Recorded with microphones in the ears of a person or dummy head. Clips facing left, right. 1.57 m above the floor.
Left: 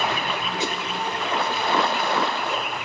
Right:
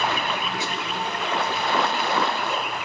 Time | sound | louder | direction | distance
0.6 | a whoosh | left 3 dB | 15° left (ahead or behind) | 0.6 m